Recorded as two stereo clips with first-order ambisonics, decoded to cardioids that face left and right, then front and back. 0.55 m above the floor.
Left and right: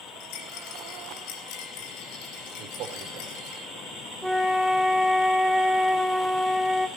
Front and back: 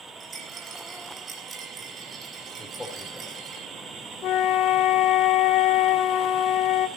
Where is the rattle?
110° left, 3.5 m.